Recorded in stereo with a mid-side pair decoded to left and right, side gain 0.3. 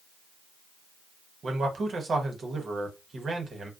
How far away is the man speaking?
About 0.9 m.